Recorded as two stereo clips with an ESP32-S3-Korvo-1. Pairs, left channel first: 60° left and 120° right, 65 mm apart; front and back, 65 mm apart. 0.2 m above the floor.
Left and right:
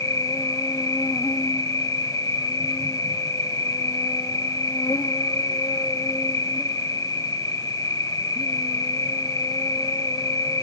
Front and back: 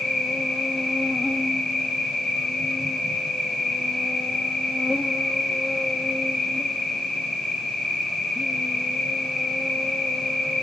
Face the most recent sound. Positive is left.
turn(degrees=85)